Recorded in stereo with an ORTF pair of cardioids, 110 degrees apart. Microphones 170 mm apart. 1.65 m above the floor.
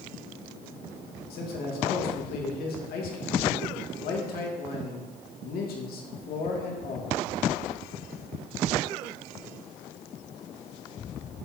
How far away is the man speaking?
About 3 m.